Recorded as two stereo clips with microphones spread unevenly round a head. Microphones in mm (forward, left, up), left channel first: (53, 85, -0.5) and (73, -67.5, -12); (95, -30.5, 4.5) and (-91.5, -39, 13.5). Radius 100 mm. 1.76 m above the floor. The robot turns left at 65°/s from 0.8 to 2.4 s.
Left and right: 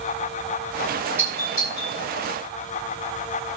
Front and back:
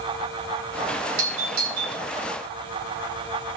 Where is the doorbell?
160° right, 8.5 m; by 2.0 s 145° left, 8.5 m.